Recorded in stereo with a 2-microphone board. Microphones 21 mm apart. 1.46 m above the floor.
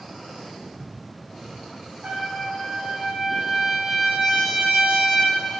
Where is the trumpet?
80° right, 1.8 m.